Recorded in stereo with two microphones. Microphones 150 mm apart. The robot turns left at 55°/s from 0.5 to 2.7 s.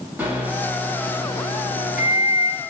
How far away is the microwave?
About 1.9 m.